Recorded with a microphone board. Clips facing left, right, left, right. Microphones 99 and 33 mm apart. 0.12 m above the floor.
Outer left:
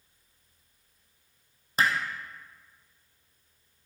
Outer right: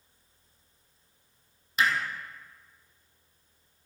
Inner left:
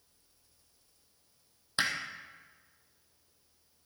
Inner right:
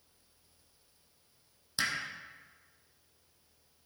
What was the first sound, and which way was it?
Hammering, 40° left (ahead or behind).